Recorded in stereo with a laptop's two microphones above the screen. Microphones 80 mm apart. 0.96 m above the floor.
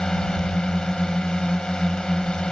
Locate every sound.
0.0 s a drone: 10° left (ahead or behind)